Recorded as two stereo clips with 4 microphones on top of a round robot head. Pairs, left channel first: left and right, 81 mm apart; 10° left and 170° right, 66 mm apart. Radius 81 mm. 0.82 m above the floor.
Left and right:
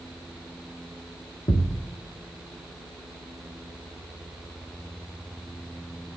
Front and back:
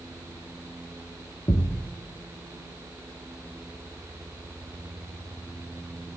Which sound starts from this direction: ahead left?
A thud, at 1.5 s.